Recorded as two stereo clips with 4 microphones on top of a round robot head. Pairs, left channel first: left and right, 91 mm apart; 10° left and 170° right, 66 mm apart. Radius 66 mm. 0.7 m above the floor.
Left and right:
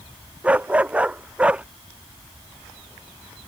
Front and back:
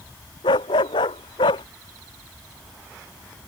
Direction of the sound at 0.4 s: 15° right.